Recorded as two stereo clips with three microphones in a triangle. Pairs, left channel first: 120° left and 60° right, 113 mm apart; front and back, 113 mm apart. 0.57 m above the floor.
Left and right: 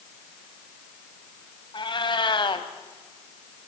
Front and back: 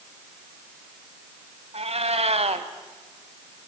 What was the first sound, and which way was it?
A cat meowing, 165° left.